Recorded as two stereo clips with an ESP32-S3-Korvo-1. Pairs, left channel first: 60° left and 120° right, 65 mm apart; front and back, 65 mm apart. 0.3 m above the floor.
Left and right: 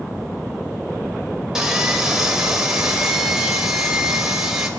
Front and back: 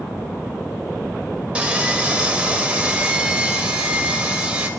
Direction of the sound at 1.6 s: Straight behind.